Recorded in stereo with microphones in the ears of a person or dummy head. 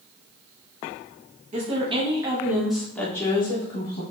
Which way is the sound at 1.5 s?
30° right (ahead or behind).